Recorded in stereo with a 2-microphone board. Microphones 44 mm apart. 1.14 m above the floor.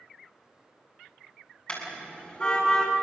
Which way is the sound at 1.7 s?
25° left (ahead or behind).